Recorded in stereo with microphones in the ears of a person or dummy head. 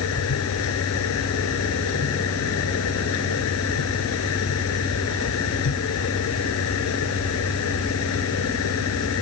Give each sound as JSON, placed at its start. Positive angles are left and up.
{"t": 0.0, "sound": "a machine running", "side_deg": 90}